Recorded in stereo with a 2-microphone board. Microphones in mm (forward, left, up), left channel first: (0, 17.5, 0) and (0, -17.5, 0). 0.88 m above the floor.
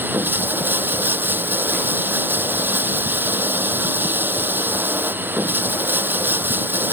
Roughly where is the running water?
Right.